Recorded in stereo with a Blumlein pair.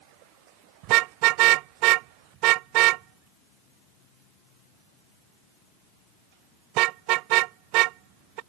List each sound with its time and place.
0.8 s a car horn: 40° right